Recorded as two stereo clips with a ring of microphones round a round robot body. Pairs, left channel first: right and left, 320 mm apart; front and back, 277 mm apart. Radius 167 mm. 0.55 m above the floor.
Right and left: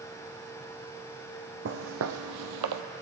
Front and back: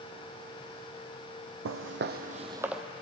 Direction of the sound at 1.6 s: 145° left.